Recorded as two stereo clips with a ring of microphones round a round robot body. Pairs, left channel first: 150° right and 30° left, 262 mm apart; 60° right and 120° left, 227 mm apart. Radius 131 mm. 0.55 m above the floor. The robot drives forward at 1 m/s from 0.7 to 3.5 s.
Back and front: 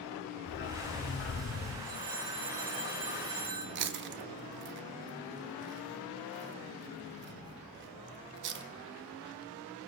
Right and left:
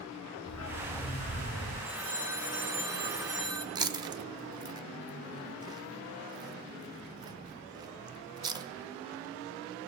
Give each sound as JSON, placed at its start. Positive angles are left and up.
{"t": 0.5, "sound": "a dog barking", "azimuth_deg": -95, "distance_m": 3.0}
{"t": 1.8, "sound": "a phone ringing", "azimuth_deg": 35, "distance_m": 5.0}
{"t": 3.8, "sound": "chewing", "azimuth_deg": 55, "distance_m": 0.6}